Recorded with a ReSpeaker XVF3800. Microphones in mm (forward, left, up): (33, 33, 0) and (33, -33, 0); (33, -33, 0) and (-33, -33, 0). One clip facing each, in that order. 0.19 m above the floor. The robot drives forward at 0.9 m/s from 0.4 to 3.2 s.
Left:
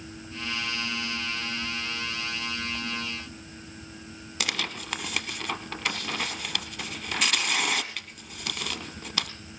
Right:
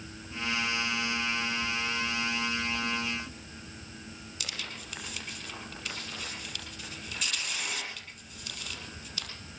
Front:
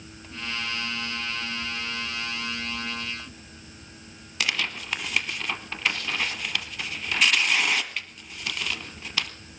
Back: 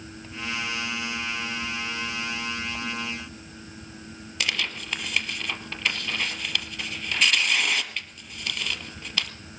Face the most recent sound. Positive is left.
turn(degrees=85)